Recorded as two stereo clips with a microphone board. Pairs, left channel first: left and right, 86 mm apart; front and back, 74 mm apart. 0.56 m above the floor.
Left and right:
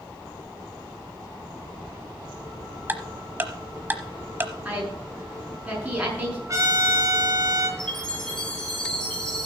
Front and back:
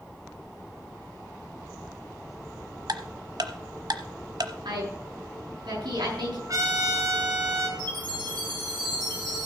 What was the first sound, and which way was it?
Ticking, 155° right.